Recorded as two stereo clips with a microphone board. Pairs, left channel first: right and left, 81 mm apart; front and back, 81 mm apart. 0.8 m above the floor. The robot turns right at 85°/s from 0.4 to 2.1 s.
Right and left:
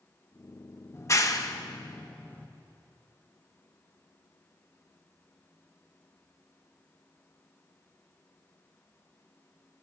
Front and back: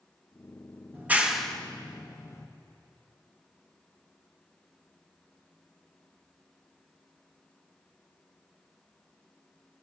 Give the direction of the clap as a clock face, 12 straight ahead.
4 o'clock.